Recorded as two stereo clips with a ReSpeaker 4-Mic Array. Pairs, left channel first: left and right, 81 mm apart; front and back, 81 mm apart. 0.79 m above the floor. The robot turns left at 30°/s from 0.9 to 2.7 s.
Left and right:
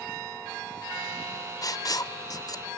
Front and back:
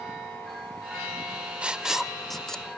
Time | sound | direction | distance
1.6 | writing | 110° left | 0.6 m